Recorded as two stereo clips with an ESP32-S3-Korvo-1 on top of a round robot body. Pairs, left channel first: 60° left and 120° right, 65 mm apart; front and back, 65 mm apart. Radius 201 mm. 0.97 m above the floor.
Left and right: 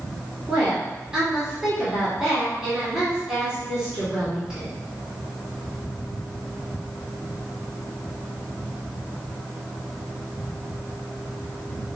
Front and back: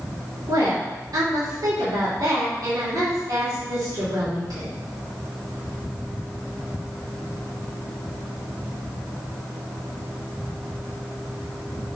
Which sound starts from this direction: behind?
A woman speaking, at 0.5 s.